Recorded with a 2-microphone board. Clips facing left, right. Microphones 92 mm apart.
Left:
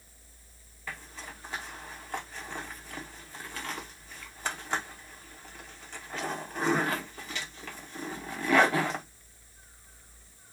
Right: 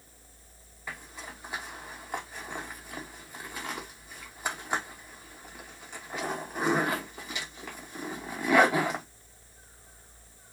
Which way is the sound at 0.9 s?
15° right (ahead or behind).